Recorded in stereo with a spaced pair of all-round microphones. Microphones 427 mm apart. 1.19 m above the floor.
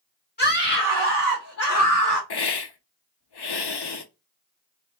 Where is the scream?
20° left (ahead or behind), 1.6 m; by 2.2 s 50° left (ahead or behind), 1.1 m.